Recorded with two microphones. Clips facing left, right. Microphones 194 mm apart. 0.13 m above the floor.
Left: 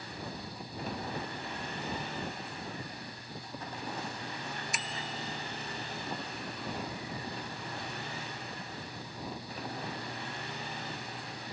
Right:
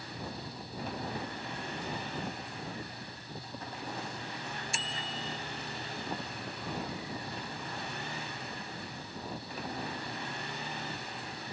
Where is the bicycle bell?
30° right (ahead or behind).